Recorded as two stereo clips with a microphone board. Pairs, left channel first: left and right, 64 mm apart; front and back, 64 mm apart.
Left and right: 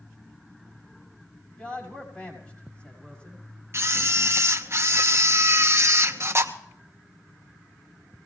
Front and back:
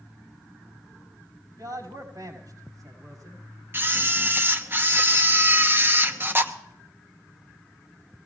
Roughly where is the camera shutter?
Behind right.